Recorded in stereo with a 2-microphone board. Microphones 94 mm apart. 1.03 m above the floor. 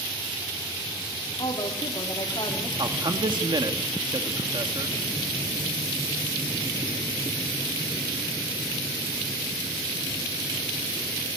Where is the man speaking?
55° right (ahead or behind), 2.0 m.